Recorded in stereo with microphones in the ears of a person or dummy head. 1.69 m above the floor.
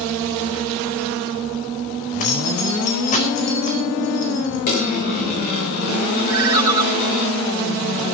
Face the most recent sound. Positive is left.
turn(degrees=-20)  # may be behind; listen again after turning